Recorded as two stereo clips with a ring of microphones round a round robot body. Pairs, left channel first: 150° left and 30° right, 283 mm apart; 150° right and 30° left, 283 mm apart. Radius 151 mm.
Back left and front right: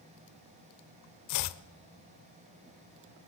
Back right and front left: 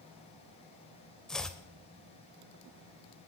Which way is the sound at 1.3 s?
120° left.